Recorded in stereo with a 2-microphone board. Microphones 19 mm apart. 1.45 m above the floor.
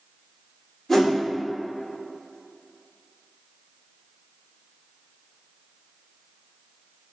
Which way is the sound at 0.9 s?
25° left (ahead or behind).